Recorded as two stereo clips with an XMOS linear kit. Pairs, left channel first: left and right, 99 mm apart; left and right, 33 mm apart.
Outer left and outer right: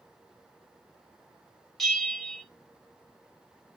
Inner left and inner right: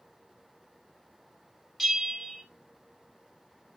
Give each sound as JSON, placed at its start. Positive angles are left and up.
{"t": 1.8, "sound": "a bell", "side_deg": 5, "distance_m": 3.5}